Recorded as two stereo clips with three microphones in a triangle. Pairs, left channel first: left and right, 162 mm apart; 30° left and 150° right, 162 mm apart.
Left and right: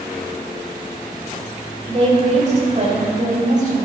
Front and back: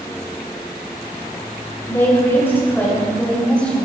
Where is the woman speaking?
45° right, 5.5 m; by 3.9 s 55° right, 6 m.